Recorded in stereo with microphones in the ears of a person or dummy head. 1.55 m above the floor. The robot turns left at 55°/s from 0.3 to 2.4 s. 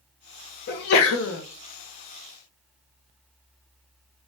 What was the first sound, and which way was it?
A sneeze, 125° left.